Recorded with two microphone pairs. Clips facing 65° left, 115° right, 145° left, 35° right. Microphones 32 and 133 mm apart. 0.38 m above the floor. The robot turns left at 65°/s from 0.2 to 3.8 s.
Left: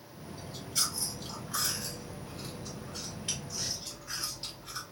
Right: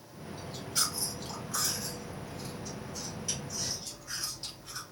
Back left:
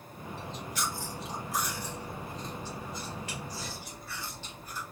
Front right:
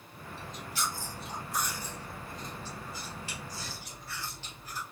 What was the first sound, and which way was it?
Chewing, 145° right.